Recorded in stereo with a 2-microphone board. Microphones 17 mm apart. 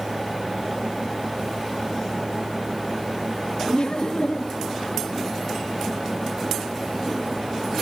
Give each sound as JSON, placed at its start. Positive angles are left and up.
{"t": 3.7, "sound": "laughter", "side_deg": 65, "distance_m": 1.6}